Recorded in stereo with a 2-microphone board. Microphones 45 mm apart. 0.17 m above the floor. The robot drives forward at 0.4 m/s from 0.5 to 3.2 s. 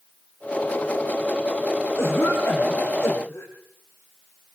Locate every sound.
2.0 s a cough: 70° left (ahead or behind), 8 m